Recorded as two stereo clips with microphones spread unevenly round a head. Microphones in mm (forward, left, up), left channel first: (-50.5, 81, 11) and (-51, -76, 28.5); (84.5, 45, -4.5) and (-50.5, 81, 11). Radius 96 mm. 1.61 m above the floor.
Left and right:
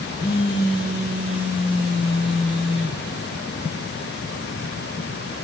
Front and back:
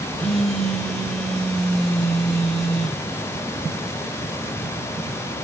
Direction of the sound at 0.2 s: 80° left.